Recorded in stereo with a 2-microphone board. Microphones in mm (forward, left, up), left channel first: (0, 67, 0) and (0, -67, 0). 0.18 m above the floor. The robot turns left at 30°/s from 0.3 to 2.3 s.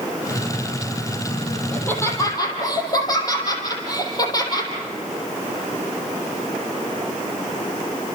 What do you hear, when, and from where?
1.7 s laughter: 10° left (ahead or behind), 6 m; by 4.7 s 30° left (ahead or behind), 6 m